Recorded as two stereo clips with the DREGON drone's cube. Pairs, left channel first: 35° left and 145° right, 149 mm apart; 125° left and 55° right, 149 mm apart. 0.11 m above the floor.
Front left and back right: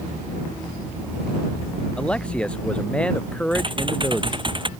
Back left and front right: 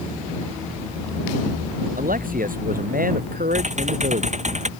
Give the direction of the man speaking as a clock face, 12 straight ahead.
2 o'clock.